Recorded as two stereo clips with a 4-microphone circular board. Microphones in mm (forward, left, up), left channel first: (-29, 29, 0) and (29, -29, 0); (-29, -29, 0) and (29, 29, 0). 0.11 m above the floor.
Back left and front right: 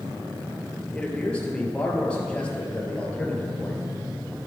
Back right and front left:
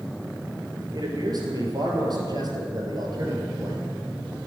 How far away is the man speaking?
About 2.0 m.